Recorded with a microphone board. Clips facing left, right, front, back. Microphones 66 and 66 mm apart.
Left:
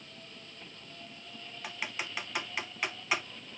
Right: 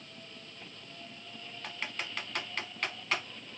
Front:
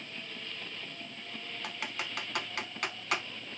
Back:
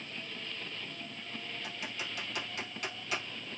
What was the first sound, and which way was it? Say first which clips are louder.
Typing on a keyboard: left 1 dB, front 5 dB; 10° left.